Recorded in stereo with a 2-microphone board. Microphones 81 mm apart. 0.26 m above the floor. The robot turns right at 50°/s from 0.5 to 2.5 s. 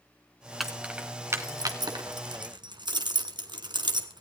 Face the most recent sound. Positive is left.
turn(degrees=-65)  # may be behind; listen again after turning